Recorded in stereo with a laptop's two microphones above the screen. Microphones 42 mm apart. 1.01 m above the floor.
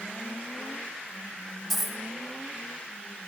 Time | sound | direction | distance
1.7 | a dropped coin | centre (ahead or behind) | 0.8 m